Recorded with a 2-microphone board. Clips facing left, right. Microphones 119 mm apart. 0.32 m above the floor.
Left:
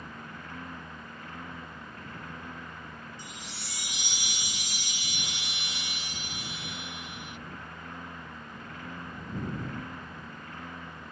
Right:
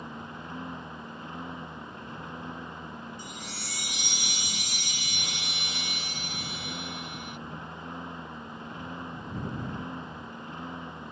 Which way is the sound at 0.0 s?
20° right (ahead or behind).